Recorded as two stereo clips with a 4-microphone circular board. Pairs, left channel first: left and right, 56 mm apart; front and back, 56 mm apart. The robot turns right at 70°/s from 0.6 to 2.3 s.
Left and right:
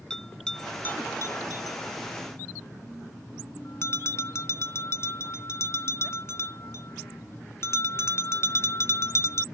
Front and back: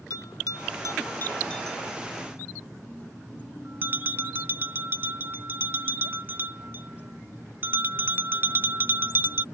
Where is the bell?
10° left; by 9.4 s 130° left.